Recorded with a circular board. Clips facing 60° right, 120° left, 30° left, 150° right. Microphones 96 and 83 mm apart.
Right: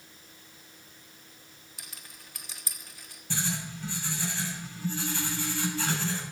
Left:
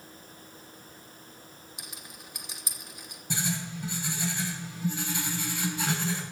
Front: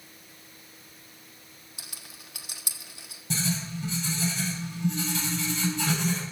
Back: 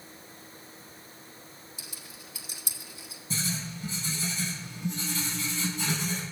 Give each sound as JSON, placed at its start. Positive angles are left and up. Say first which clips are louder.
{"t": 1.8, "sound": "a rattle", "louder": "left 2 dB, back 2 dB", "azimuth_deg": 50, "distance_m": 1.3}
{"t": 3.3, "sound": "writing", "louder": "left 2 dB, front 4 dB", "azimuth_deg": 45, "distance_m": 6.5}